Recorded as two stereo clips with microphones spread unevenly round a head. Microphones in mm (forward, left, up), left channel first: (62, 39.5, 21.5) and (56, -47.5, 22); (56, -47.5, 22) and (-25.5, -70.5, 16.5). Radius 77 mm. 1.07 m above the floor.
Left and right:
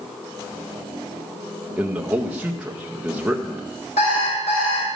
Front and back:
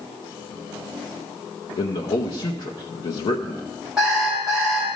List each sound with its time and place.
1.8 s a man speaking: 15° right, 0.7 m
4.0 s an alarm clock: 110° left, 4 m